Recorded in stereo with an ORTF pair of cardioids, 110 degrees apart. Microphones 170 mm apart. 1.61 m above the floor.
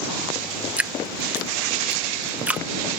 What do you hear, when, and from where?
0.8 s dripping: 10° right